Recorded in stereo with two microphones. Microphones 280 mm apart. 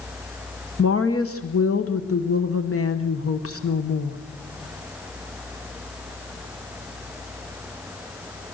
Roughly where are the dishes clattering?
No dishes clattering in this recording.